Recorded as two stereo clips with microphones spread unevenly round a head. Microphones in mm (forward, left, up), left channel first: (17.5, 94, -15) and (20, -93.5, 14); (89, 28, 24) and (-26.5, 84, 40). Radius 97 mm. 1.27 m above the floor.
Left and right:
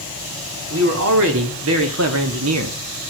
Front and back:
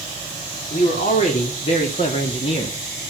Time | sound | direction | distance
0.7 | a man speaking | 75° right | 4 m